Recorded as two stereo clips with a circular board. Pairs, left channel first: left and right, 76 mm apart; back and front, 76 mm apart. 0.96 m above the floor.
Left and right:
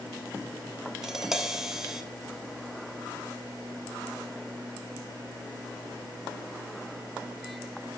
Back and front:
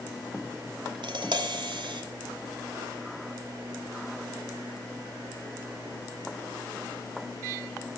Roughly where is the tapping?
Ahead.